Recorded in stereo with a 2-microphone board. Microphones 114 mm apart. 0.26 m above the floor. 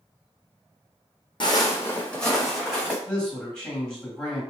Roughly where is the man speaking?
Centre.